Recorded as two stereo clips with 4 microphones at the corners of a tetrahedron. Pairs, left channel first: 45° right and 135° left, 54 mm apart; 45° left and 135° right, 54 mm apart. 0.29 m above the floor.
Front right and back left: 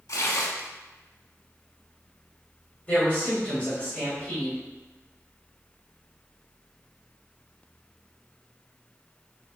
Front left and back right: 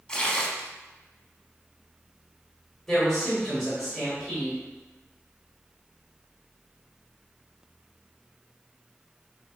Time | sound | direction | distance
0.1 | tearing paper | 30° right | 0.5 m
2.9 | a man speaking | 30° right | 1.2 m